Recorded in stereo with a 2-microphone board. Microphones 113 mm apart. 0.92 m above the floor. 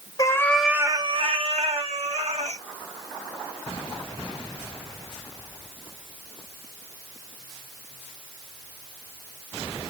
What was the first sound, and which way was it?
A cat meowing, 30° left (ahead or behind).